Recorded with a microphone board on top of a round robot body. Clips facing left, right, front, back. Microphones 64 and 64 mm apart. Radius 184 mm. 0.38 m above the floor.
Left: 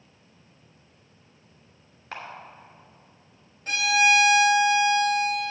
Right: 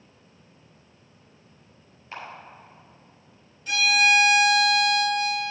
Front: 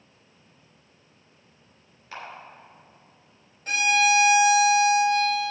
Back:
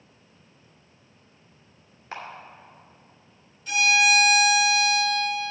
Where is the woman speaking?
No woman speaking in this recording.